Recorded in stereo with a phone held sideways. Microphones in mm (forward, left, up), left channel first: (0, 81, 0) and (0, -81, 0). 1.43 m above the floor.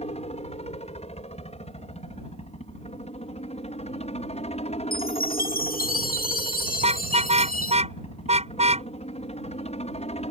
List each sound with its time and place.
0.0 s a helicopter: 45° left (ahead or behind)
4.9 s a chime: 75° left (ahead or behind)
6.8 s a car horn: 45° right (ahead or behind)